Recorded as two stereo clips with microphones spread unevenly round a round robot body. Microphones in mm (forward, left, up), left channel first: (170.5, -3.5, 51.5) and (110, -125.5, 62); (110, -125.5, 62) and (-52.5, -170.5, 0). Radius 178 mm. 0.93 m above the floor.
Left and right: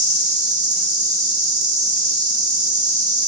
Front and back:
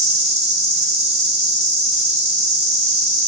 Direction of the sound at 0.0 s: 110° right.